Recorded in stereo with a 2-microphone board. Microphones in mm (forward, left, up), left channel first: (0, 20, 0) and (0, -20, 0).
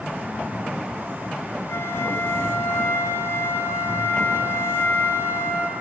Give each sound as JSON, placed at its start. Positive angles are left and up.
{"t": 1.7, "sound": "a flute", "side_deg": 70, "distance_m": 5.5}